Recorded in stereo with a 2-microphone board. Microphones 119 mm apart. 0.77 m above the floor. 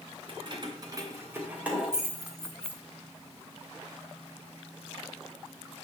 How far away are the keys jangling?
About 2.5 m.